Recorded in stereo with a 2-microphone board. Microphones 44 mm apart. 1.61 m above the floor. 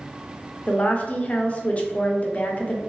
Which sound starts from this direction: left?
A woman speaking, at 0.7 s.